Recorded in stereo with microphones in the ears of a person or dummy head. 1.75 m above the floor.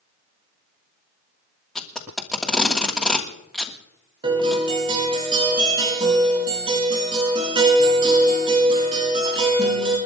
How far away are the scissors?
No scissors in this recording.